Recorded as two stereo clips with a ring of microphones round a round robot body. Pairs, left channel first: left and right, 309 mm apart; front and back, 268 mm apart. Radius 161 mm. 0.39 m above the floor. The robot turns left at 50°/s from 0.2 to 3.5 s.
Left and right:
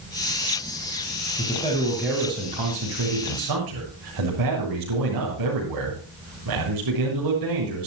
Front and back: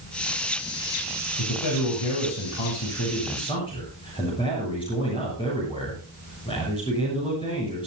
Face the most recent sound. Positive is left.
turn(degrees=-75)